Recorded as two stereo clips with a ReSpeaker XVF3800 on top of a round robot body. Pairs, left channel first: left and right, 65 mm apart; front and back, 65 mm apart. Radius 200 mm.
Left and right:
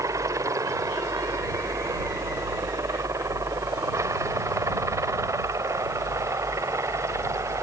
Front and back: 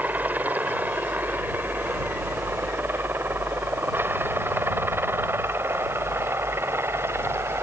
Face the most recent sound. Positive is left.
turn(degrees=-130)